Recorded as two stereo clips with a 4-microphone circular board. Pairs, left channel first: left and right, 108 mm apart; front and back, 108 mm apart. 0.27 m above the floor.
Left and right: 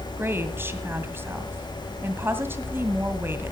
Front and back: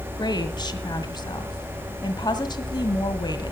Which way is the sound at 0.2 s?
30° right.